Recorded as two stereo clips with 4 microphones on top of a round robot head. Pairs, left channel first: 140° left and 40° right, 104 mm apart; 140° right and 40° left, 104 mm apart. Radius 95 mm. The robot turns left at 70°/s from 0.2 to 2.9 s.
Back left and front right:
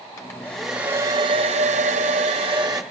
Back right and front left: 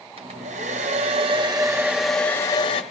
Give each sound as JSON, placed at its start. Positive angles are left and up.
{"t": 0.2, "sound": "a hair dryer", "azimuth_deg": 80, "distance_m": 0.7}